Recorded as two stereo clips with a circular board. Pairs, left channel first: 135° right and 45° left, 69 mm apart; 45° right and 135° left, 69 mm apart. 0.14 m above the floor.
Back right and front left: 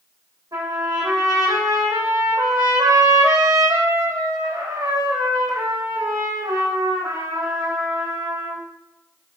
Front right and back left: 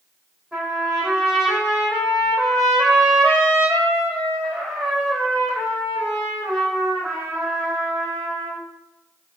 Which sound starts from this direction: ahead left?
A trumpet, at 0.5 s.